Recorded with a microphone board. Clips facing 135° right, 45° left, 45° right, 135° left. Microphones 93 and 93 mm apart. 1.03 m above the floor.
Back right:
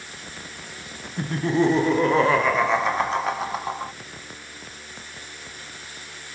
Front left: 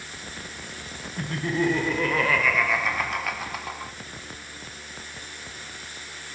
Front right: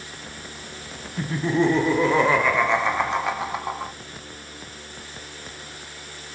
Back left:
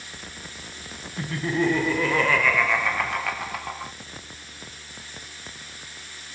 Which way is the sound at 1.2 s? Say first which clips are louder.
Back right 5 dB, front right 3 dB; 100° right.